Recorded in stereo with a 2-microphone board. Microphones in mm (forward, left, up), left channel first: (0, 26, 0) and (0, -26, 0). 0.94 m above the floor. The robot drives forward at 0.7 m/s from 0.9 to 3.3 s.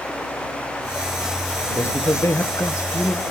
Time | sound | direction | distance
1.6 | a man speaking | 50° left (ahead or behind) | 1.1 m